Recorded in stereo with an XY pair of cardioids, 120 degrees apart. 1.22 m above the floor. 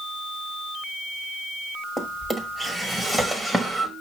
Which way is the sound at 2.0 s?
15° right.